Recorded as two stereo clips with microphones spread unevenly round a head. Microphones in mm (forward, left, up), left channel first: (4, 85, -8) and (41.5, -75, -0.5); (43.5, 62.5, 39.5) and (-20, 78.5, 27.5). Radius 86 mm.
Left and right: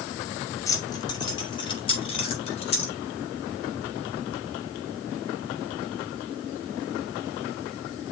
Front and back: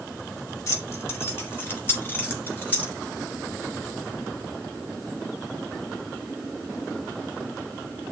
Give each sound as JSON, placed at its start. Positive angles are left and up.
{"t": 0.7, "sound": "keys jangling", "azimuth_deg": 30, "distance_m": 2.0}